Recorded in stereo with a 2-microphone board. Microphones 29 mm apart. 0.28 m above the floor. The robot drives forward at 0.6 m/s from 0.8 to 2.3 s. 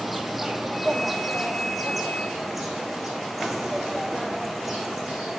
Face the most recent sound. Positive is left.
turn(degrees=-5)  # may be behind; listen again after turning